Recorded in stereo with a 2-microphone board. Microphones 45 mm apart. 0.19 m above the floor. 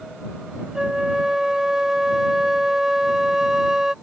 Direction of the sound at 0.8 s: 15° right (ahead or behind).